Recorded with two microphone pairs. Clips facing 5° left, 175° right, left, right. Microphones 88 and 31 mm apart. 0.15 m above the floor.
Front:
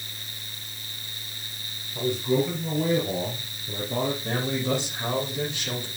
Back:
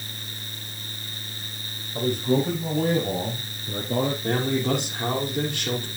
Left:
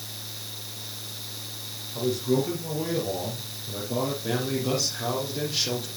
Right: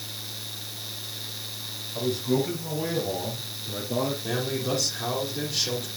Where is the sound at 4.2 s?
160° left, 5 m.